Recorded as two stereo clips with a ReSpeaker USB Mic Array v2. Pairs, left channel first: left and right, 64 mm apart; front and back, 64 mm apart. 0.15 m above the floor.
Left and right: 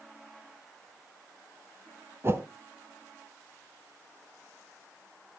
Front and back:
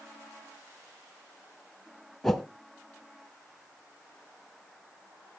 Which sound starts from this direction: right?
A whoosh, at 2.2 s.